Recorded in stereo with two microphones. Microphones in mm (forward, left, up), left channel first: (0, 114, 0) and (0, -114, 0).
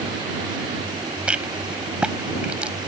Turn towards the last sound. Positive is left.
turn(degrees=-5)  # may be behind; listen again after turning